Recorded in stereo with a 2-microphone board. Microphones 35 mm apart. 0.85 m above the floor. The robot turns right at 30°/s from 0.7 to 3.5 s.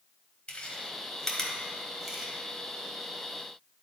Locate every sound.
0.5 s chewing: 35° left (ahead or behind), 1.5 m; by 2.3 s 15° right (ahead or behind), 1.5 m